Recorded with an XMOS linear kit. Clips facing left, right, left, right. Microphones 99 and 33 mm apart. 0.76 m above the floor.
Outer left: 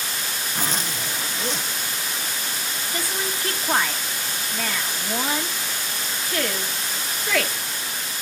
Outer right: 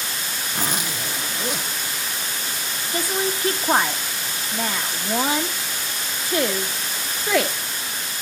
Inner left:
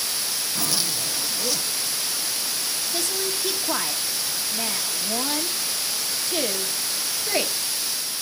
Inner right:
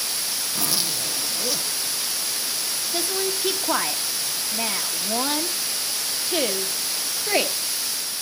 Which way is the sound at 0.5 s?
10° right (ahead or behind).